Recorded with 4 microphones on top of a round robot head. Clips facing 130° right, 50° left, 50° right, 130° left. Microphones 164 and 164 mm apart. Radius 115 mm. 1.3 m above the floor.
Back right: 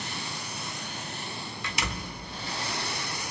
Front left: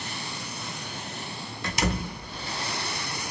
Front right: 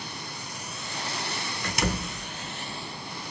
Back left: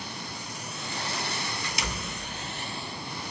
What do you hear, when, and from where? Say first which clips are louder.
1.6 s a door slam: front left 9 dB, front right 5 dB; 5° right, 0.9 m